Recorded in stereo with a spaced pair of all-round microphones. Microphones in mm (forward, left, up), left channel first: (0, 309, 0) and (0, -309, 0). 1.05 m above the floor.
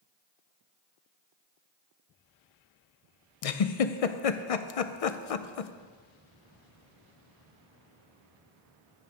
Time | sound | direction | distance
3.4 | a giggle | 60° left (ahead or behind) | 0.6 m